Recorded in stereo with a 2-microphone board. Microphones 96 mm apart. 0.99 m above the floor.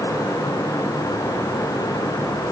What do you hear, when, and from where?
Only background noise.